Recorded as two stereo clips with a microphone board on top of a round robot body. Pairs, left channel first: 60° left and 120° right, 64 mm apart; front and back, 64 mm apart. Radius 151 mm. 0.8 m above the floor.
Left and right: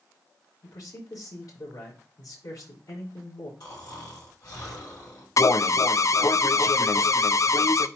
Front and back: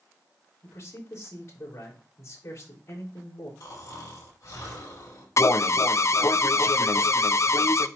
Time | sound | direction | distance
0.6 | a man speaking | 40° left | 3.5 m
3.6 | snoring | 30° left | 4 m
5.4 | an alarm | 30° left | 0.6 m